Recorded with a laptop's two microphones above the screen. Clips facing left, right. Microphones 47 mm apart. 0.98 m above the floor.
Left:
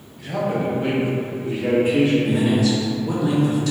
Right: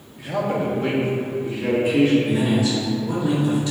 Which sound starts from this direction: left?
A man speaking, at 2.2 s.